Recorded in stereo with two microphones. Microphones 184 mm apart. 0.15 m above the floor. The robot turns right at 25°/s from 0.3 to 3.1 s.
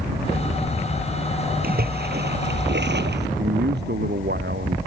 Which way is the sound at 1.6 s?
120° right.